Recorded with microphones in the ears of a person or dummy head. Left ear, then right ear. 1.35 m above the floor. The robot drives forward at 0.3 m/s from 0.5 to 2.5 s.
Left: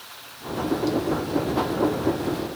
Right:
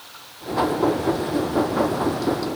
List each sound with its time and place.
Only background noise.